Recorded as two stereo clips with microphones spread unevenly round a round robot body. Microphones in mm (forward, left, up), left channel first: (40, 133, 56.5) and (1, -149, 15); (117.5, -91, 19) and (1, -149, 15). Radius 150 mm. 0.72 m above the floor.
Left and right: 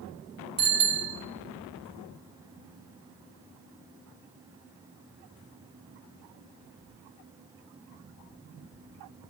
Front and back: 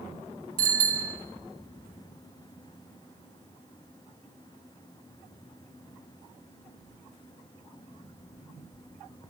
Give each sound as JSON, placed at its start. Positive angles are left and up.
{"t": 0.6, "sound": "a bicycle bell", "azimuth_deg": -165, "distance_m": 2.0}